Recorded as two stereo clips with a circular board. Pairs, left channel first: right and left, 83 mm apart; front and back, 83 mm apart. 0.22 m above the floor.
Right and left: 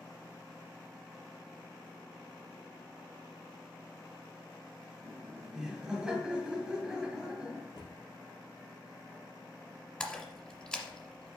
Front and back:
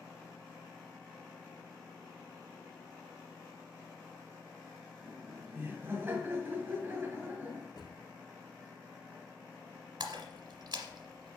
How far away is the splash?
About 1.4 m.